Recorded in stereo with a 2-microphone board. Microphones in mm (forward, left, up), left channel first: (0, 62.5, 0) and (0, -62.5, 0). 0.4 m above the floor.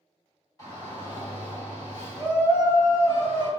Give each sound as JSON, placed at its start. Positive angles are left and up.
{"t": 0.6, "sound": "a shout", "side_deg": 30, "distance_m": 1.4}